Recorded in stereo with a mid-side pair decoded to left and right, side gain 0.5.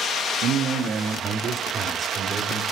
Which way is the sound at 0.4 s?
65° right.